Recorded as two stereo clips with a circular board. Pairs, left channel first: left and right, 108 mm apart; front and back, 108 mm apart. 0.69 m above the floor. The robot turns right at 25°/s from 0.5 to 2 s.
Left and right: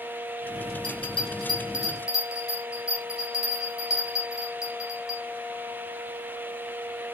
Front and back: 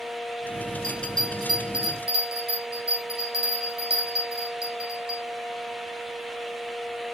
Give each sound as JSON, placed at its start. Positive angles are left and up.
{"t": 0.8, "sound": "a bell", "azimuth_deg": 120, "distance_m": 2.5}